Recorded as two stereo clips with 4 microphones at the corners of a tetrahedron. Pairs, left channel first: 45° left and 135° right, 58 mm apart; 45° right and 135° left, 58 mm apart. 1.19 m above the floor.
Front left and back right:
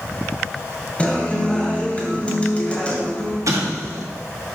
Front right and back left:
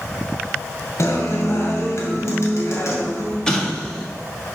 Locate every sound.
1.0 s a guitar: 20° right, 1.9 m
3.5 s an explosion: 120° right, 1.3 m